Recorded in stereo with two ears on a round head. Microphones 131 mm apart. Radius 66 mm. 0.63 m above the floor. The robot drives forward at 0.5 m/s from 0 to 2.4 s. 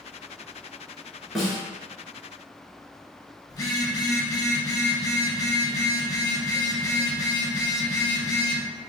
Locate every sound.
1.4 s a snare drum: centre (ahead or behind), 1.4 m
3.5 s a phone buzzing: 25° left (ahead or behind), 0.6 m